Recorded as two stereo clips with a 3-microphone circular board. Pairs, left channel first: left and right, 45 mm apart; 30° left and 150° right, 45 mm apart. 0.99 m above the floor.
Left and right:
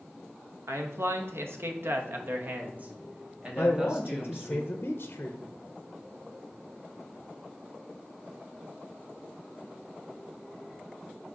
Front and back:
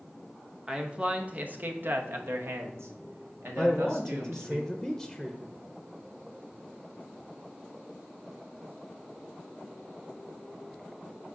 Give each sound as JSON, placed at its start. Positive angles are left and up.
{"t": 0.7, "sound": "a man speaking", "azimuth_deg": -80, "distance_m": 1.1}
{"t": 3.6, "sound": "a man speaking", "azimuth_deg": 125, "distance_m": 0.6}